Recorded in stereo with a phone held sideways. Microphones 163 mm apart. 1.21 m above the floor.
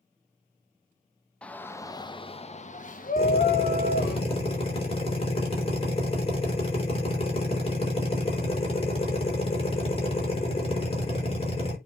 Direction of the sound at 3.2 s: 35° left (ahead or behind).